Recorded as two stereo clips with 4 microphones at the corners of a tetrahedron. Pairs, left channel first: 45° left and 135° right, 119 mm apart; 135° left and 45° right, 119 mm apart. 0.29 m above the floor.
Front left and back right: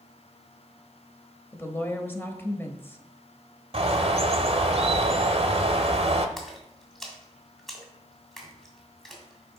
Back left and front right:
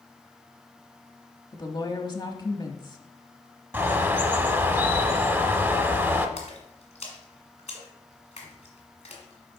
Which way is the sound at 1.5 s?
110° left.